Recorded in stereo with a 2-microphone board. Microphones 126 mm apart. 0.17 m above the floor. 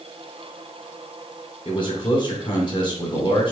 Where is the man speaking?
40° left (ahead or behind), 2.5 m.